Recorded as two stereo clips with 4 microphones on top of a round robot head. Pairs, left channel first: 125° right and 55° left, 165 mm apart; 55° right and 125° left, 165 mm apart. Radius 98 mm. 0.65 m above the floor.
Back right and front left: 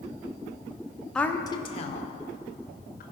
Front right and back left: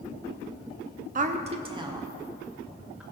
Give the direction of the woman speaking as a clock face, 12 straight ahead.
7 o'clock.